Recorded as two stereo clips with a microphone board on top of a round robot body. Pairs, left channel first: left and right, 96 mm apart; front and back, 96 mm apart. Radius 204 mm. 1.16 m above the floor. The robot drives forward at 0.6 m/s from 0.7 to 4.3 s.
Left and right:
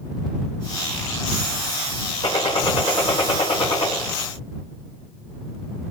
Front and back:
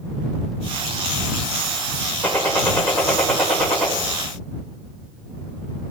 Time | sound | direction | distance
2.2 | a gunshot | 75° left | 4 m